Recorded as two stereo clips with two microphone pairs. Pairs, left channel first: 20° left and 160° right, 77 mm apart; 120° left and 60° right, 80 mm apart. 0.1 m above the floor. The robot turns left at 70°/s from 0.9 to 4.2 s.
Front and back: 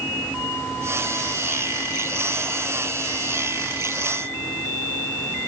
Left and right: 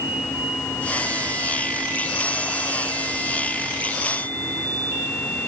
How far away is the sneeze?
I don't hear a sneeze.